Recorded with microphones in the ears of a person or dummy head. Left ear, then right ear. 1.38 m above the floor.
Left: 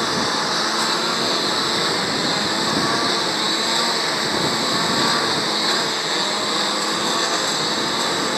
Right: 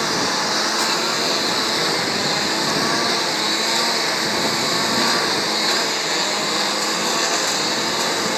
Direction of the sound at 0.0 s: 10° right (ahead or behind).